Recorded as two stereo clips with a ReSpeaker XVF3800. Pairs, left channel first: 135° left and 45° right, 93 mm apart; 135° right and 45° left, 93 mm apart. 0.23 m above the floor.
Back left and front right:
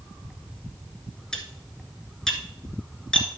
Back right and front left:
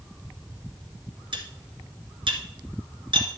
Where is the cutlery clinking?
55° left, 1.9 m.